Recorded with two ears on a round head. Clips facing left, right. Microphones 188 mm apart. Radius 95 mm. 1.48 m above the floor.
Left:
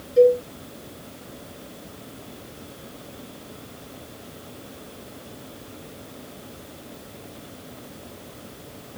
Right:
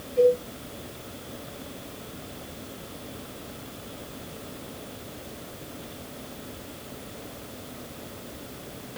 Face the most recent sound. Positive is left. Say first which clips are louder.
# left 5 dB
turn(degrees=75)  # may be behind; listen again after turning